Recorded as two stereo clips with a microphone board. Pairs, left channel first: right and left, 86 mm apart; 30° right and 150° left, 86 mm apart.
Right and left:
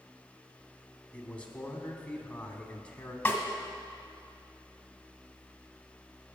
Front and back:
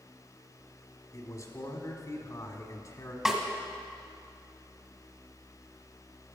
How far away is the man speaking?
About 1.3 m.